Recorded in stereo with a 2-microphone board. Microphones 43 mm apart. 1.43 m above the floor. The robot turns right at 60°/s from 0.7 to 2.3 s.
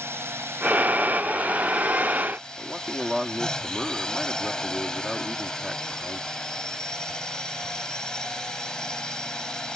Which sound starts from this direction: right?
A drone, at 0.0 s.